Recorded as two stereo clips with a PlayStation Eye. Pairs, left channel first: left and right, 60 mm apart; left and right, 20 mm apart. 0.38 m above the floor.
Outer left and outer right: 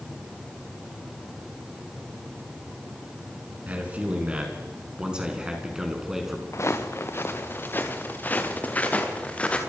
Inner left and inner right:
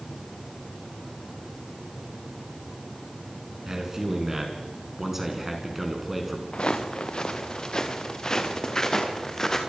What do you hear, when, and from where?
3.7 s a man speaking: 25° right (ahead or behind), 5.5 m; by 6.4 s 5° right (ahead or behind), 5 m
6.5 s footsteps: 55° left (ahead or behind), 2.5 m; by 9.6 s 25° left (ahead or behind), 4 m